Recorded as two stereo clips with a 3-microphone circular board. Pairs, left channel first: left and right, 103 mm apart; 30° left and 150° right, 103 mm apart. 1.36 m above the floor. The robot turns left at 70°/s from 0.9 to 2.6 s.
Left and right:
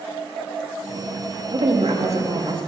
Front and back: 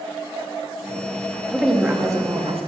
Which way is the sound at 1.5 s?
50° right.